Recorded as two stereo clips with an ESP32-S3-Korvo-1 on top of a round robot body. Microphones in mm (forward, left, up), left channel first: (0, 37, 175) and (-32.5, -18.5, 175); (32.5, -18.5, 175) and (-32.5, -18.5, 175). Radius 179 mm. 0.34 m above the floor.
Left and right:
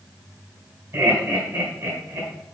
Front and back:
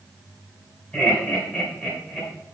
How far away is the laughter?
About 3 m.